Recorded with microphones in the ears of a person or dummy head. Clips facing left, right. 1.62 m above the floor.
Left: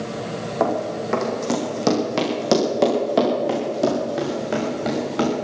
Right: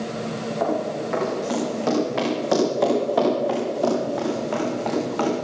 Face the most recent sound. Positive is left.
turn(degrees=25)  # may be behind; listen again after turning